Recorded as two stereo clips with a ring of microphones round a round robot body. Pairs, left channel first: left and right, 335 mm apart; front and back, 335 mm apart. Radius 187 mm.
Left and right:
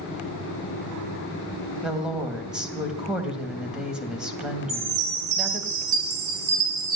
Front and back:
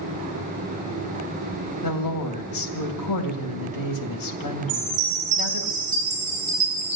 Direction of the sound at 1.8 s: 5° right.